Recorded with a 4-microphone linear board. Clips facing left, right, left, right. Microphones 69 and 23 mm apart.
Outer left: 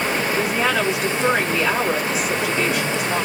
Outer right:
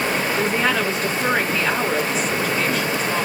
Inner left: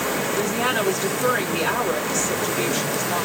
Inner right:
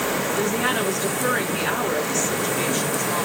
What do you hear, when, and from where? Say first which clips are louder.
0.3 s a woman speaking: even, inner left 1 dB; 10° left (ahead or behind), 2.5 m